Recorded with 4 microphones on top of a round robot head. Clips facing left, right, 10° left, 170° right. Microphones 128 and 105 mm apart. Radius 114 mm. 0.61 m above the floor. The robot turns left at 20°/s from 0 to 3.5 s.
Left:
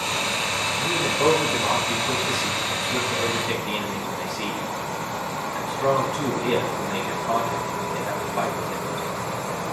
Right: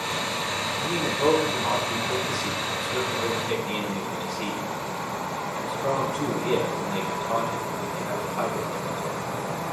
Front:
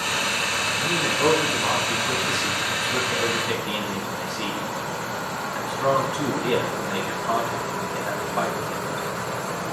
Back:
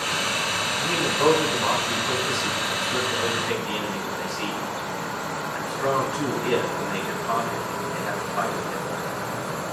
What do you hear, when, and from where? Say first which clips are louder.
0.8 s a man speaking: left 2 dB, back 1 dB; 140° left, 6 m; by 8.8 s 85° left, 6 m